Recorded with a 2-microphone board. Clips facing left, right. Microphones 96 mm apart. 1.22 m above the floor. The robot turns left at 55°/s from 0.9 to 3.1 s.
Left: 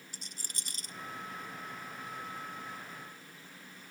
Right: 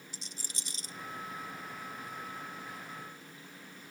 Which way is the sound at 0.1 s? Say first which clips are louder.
Right 1 dB; 50° left (ahead or behind).